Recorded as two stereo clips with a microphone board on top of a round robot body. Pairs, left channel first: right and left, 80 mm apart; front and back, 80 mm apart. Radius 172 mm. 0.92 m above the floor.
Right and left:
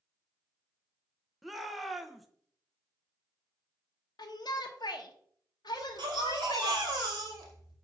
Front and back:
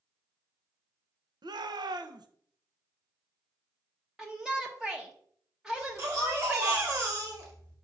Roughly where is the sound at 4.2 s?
Right.